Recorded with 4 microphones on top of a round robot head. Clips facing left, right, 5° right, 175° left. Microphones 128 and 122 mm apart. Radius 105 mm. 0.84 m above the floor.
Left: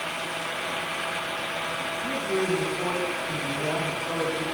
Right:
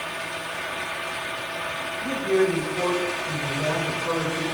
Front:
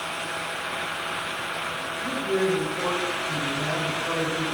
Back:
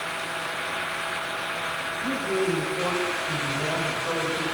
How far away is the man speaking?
About 5 m.